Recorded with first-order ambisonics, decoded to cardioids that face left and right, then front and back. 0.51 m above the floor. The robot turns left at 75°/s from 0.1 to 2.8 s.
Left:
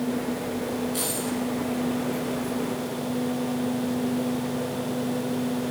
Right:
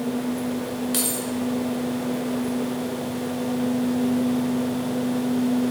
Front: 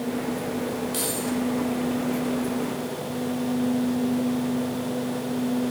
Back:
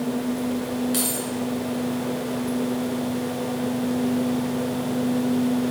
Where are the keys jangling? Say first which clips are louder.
Right 2 dB, back 1 dB; 100° right, 1.7 m; by 1.3 s 125° right, 1.7 m.